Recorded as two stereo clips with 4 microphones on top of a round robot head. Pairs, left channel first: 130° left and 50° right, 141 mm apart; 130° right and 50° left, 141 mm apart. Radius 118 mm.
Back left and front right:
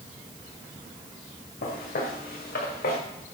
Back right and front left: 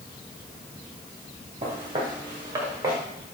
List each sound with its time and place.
1.6 s footsteps: 105° left, 4 m; by 3.0 s 120° left, 4.5 m